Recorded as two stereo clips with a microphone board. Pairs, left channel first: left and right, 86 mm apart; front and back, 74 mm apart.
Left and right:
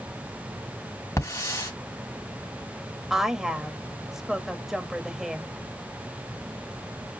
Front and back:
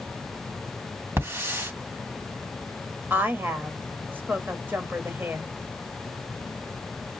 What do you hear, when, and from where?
1.2 s a hiss: 135° left, 2.5 m
3.1 s a woman speaking: 170° right, 1.1 m